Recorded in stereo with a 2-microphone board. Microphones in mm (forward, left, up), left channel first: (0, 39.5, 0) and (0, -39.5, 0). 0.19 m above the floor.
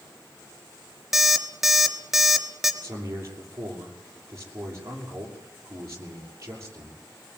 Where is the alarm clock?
5° right (ahead or behind), 1.9 m.